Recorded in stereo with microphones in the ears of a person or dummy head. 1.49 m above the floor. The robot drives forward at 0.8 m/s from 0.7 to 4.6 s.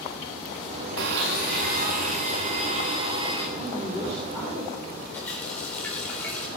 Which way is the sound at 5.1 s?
10° left (ahead or behind).